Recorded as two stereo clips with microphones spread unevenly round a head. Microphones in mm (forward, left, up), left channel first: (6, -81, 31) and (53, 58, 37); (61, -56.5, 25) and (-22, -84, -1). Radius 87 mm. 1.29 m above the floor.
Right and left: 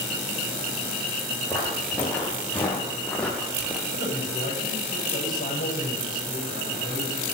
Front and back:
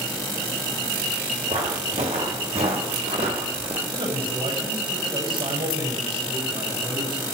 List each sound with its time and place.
1.5 s footsteps: 175° left, 4 m; by 3.8 s 160° left, 2 m
3.9 s a man speaking: 145° right, 8 m